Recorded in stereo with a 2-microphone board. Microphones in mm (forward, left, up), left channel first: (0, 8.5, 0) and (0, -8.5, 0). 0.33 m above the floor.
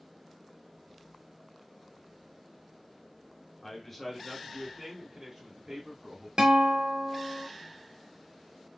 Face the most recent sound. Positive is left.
turn(degrees=-65)  # may be behind; listen again after turning